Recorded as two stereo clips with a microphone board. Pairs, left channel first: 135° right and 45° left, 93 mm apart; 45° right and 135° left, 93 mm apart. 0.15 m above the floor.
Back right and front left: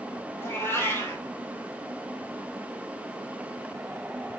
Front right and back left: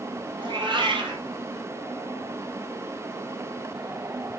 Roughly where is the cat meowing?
Behind.